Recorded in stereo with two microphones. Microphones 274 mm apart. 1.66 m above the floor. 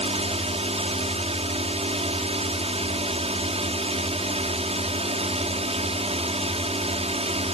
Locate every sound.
0.0 s a drone: 20° right (ahead or behind)